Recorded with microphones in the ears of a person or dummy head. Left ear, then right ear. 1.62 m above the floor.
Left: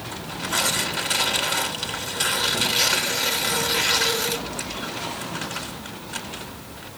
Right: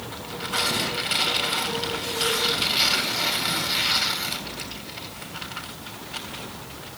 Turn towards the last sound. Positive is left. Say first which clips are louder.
# left 2 dB
turn(degrees=55)  # may be behind; listen again after turning